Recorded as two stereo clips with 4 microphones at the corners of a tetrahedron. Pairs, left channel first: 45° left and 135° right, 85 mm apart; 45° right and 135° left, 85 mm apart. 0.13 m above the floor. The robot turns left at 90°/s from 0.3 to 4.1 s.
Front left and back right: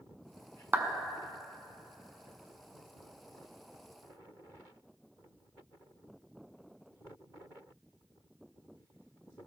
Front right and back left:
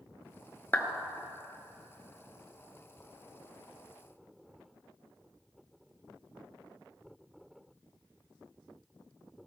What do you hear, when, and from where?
0.7 s a clap: 85° right, 0.9 m; by 0.9 s 100° right, 0.9 m